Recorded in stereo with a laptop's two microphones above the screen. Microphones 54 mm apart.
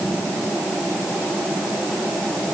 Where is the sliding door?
I don't hear a sliding door.